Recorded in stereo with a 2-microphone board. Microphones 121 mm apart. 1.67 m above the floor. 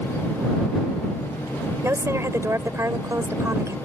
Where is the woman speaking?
25° right (ahead or behind).